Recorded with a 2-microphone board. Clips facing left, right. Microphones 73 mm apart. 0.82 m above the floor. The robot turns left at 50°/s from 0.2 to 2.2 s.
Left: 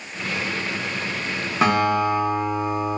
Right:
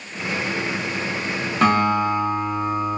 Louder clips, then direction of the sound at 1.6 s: Right 1 dB; 5° left (ahead or behind).